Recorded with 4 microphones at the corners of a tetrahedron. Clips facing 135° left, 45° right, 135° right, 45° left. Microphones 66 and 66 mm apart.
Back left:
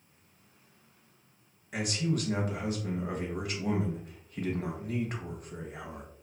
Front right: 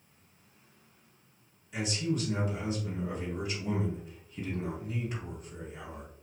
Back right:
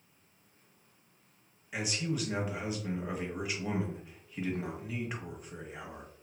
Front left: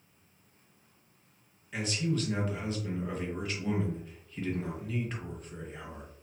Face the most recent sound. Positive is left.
turn(degrees=150)